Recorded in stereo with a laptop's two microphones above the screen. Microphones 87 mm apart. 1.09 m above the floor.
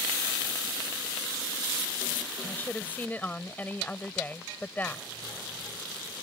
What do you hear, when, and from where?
2.5 s a woman speaking: 20° left (ahead or behind)